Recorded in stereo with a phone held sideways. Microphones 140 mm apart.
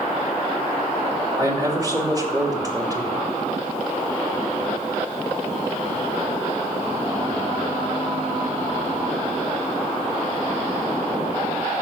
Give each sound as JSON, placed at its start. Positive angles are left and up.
{"t": 1.4, "sound": "a man speaking", "side_deg": -25, "distance_m": 2.5}